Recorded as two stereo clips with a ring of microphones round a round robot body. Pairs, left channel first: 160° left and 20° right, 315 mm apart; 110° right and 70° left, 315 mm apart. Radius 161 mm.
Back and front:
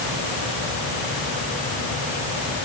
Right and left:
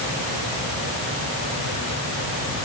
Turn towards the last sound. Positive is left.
No sound to turn to.